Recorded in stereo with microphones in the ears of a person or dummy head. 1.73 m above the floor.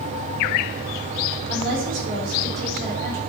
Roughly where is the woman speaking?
Right.